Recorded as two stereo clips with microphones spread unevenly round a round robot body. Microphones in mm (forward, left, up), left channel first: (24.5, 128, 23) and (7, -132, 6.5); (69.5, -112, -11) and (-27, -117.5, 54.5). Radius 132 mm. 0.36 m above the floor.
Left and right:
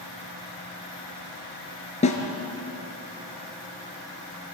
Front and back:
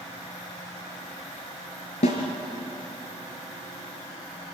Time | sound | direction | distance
2.0 | a snare drum | 20° left | 3.5 m